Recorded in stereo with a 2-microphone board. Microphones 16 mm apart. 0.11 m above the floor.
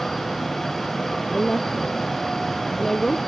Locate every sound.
1.3 s a woman speaking: 30° left (ahead or behind)